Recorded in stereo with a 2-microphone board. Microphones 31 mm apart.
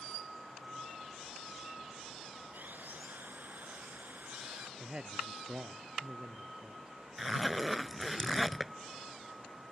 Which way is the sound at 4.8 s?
30° right (ahead or behind).